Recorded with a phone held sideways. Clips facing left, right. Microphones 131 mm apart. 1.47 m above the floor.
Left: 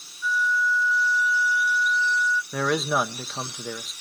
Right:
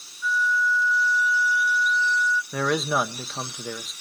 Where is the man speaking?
Centre (ahead or behind), 0.5 m.